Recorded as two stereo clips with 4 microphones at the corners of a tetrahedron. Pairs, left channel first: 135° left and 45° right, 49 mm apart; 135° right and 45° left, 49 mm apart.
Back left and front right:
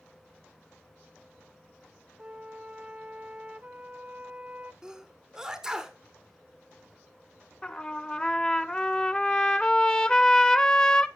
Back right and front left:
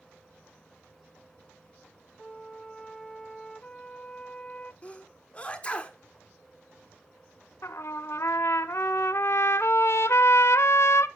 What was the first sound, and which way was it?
A flute, 70° right.